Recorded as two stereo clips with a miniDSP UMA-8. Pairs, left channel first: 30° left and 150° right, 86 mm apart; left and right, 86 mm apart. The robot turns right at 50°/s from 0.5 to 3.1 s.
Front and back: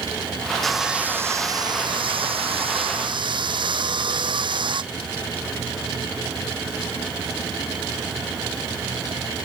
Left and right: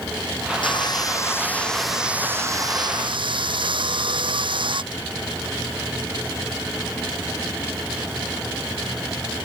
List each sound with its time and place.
0.6 s sawing: 120° left; by 4.8 s 120° right